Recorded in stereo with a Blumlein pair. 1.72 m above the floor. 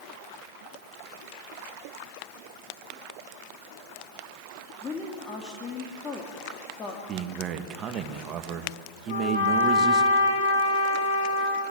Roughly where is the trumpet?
Ahead left.